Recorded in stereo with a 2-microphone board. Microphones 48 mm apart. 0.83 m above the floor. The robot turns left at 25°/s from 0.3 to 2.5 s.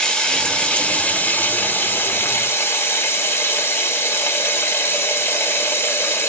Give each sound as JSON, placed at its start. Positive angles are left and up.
{"t": 0.0, "sound": "running water", "azimuth_deg": 165, "distance_m": 0.9}